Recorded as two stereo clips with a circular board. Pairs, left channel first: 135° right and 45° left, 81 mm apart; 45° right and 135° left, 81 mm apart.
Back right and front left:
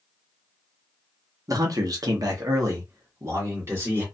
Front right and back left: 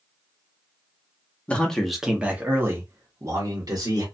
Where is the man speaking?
25° left, 0.9 m; by 4.0 s 105° left, 1.7 m.